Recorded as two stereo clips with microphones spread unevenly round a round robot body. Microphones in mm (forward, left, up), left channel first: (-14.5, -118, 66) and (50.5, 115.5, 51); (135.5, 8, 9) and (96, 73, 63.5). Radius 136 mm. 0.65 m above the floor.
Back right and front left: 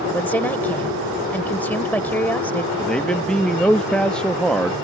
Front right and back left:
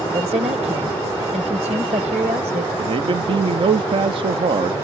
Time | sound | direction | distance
0.1 | a woman speaking | 170° left | ?
2.8 | a man speaking | 165° left | ?